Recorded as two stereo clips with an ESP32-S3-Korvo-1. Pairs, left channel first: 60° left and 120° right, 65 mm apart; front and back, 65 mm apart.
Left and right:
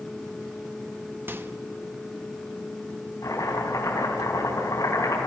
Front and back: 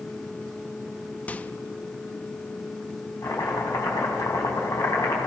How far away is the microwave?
About 0.7 m.